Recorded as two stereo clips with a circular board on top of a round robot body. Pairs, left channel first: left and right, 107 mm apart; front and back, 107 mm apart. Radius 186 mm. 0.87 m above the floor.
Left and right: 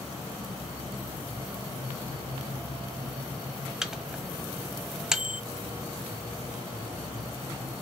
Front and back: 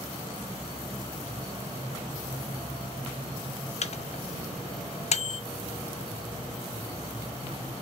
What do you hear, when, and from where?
3.8 s a microwave: 5° right, 0.7 m